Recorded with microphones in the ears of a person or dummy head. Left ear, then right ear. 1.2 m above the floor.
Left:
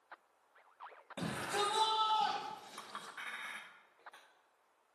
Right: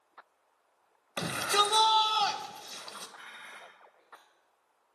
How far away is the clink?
About 0.8 m.